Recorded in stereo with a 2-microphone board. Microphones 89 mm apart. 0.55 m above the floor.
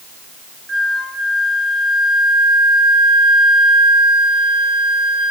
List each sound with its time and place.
0.7 s a flute: centre (ahead or behind), 3.5 m